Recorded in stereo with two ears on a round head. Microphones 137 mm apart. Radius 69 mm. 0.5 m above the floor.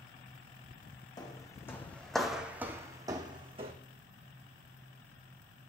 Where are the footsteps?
25° left (ahead or behind), 1.9 m; by 3.7 s 40° right (ahead or behind), 1.9 m.